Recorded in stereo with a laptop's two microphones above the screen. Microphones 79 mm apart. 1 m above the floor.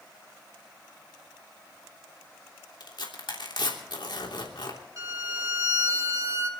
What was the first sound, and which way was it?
Tearing paper, 75° left (ahead or behind).